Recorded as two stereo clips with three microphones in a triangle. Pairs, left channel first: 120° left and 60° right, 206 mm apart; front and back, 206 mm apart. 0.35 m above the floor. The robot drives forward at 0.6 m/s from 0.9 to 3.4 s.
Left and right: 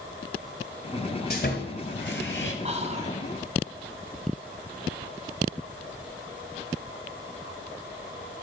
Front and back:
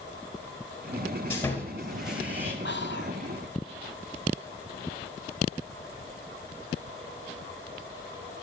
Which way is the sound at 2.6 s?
5° right.